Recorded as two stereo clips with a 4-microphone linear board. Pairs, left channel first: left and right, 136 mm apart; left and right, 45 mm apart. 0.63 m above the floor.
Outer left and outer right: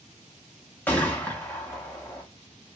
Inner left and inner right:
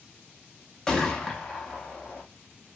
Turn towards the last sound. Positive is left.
turn(degrees=10)  # may be behind; listen again after turning